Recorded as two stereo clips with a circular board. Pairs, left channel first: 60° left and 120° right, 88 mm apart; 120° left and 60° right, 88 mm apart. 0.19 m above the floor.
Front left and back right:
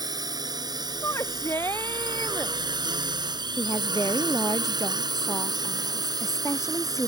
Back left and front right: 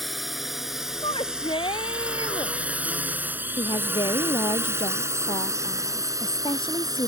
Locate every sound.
0.0 s a drone: 150° right; by 7.1 s 90° right
1.0 s a shout: 120° left
3.6 s a woman speaking: 110° left